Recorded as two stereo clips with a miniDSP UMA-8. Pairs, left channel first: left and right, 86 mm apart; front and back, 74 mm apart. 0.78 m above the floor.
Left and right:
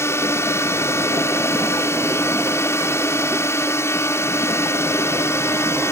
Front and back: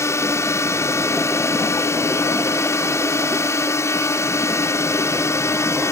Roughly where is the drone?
Ahead left.